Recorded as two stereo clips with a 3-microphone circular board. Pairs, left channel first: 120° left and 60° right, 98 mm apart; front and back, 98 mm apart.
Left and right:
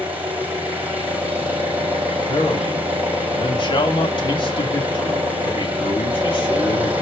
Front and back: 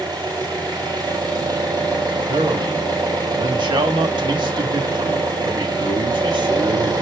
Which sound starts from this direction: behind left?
A man speaking, at 2.3 s.